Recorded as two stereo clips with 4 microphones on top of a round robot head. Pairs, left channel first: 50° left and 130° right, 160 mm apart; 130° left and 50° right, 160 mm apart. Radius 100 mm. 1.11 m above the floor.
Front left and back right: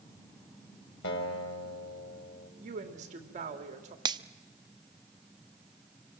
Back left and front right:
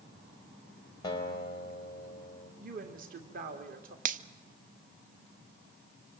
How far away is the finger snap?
About 0.8 m.